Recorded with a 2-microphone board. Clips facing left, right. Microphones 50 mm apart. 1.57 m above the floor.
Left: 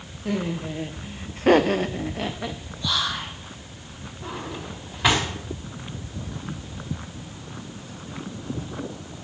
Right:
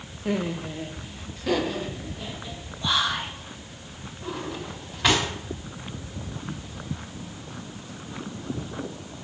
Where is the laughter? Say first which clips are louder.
Even; 10° right (ahead or behind), 0.7 m; by 2.6 s 70° left (ahead or behind), 1.1 m.